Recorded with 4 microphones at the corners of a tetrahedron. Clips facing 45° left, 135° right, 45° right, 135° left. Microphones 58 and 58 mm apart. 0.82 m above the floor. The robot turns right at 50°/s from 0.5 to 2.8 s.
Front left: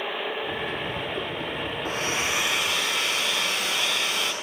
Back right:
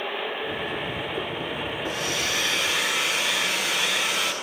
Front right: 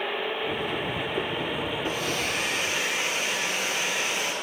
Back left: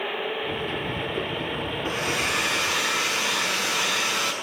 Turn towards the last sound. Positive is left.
turn(degrees=140)